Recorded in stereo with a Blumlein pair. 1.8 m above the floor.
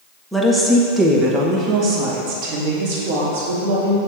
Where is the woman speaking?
5° right, 1.6 m; by 4.0 s 55° right, 3 m.